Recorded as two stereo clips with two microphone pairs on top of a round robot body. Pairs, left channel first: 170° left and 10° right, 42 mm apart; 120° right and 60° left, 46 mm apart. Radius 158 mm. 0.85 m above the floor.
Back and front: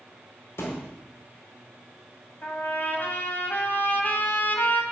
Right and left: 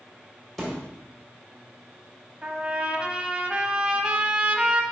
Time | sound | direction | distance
0.6 | a thud | 155° left | 1.4 m
2.4 | a trumpet | 135° left | 1.4 m